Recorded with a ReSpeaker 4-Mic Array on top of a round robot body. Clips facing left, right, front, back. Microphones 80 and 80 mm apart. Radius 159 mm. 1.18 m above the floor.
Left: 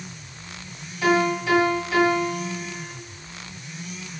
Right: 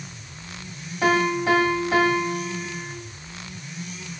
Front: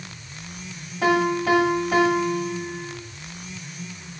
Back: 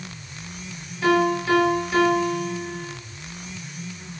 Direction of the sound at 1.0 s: 35° right.